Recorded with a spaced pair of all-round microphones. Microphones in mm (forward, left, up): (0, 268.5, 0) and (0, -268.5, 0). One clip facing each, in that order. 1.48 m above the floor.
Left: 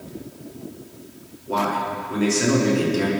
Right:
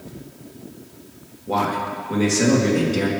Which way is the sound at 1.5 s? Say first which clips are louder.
Right 1 dB; 85° right.